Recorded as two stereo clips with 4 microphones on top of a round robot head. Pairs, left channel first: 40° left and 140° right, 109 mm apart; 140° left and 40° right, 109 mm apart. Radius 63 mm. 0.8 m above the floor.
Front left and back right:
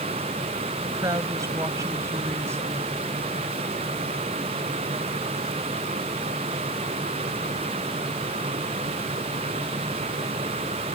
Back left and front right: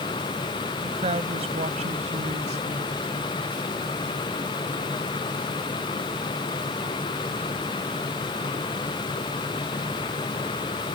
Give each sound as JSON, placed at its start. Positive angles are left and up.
{"t": 0.8, "sound": "a woman speaking", "azimuth_deg": -80}